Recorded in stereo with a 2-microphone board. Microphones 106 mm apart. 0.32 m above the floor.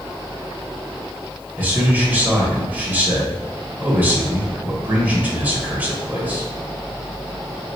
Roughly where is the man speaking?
Centre.